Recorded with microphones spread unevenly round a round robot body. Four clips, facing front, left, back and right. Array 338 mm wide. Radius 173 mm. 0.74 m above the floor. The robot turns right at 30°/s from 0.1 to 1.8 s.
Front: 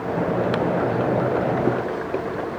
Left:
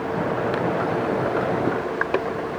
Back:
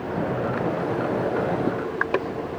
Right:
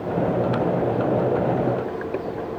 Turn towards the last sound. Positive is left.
No sound to turn to.